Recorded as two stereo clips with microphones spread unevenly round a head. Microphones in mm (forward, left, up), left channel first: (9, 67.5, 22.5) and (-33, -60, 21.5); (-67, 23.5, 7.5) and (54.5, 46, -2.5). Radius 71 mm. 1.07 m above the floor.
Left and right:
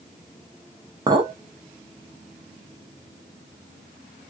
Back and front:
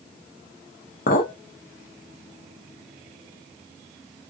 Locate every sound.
1.1 s a clink: 170° right, 0.8 m